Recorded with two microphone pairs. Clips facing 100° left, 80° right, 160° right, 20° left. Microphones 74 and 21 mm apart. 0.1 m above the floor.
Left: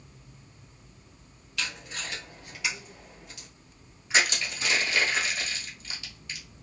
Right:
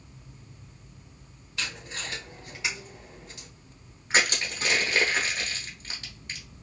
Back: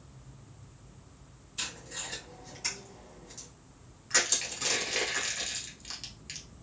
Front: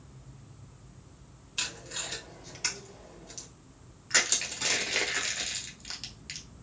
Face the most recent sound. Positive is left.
turn(degrees=-55)